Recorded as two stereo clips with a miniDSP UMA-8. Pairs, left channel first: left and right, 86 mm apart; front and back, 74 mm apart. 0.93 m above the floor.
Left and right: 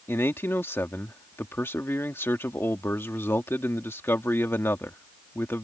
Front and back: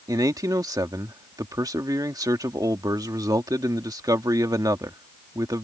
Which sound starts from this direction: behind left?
A man speaking, at 0.1 s.